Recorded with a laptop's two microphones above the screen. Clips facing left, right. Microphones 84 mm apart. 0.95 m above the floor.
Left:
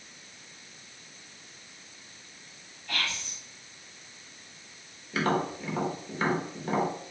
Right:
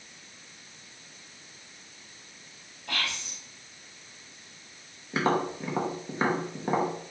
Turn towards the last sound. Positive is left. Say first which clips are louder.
# right 1 dB
turn(degrees=-25)  # may be behind; listen again after turning